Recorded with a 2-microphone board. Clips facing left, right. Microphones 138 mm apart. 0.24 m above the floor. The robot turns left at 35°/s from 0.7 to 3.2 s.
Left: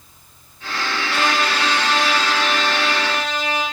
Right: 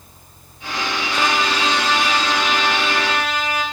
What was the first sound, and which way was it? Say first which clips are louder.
A trumpet: even; 110° left.